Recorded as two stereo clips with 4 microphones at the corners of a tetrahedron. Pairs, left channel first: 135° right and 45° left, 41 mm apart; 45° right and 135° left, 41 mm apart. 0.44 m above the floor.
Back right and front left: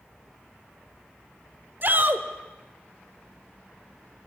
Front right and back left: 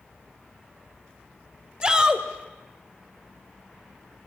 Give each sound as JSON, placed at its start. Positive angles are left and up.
{"t": 1.8, "sound": "a shout", "azimuth_deg": 70, "distance_m": 1.6}